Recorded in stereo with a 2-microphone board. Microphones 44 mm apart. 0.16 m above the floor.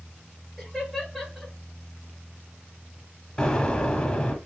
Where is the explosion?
20° left (ahead or behind), 0.9 m.